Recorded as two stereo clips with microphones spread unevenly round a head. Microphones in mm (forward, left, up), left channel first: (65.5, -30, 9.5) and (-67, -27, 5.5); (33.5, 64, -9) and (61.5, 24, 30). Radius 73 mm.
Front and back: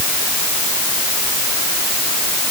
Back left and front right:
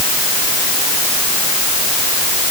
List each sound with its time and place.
Only background noise.